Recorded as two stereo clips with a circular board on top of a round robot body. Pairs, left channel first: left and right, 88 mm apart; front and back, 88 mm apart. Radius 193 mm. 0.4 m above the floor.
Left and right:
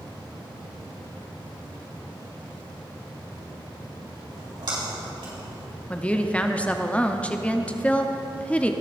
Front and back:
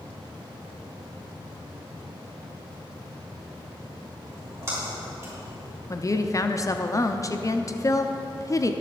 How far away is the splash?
About 4 m.